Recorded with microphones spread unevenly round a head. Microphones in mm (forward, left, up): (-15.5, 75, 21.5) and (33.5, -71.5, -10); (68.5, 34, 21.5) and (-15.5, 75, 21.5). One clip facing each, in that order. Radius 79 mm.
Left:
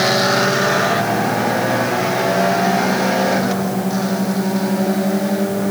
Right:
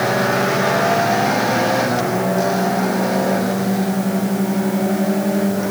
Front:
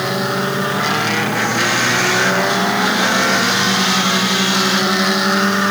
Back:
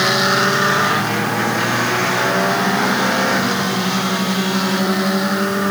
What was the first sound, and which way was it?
Only background noise.